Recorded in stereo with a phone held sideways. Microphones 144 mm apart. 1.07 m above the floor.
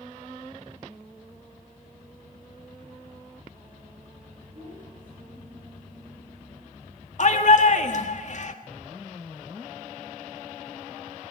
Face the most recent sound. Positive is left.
turn(degrees=55)  # may be behind; listen again after turning